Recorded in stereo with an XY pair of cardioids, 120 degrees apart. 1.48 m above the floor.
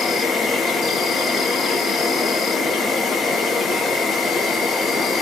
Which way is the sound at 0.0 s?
40° left.